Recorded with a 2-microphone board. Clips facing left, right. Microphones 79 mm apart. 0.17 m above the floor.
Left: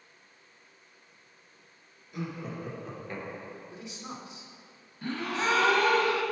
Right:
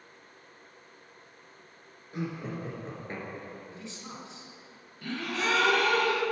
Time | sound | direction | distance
2.1 | laughter | 40° right (ahead or behind) | 2 m
3.7 | a man speaking | 20° left (ahead or behind) | 1.7 m
5.0 | a gasp | 30° left (ahead or behind) | 1.7 m